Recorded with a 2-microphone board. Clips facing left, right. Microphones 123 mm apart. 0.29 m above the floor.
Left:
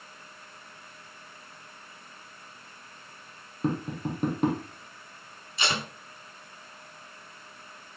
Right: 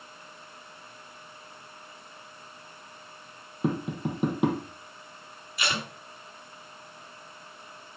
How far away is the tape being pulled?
About 3 m.